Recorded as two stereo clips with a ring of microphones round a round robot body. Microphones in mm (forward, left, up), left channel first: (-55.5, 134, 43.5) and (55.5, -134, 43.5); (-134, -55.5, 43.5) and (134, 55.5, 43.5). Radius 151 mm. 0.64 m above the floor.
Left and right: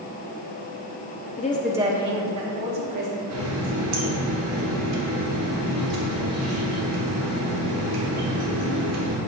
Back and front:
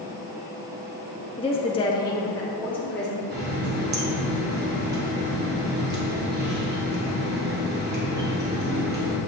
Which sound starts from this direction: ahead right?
A running tap, at 3.3 s.